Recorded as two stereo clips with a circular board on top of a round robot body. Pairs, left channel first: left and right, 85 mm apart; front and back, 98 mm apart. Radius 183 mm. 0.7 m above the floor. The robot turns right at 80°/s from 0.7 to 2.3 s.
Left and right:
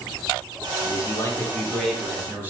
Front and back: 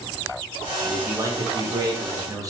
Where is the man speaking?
100° left, 0.9 m; by 2.5 s 145° right, 0.9 m.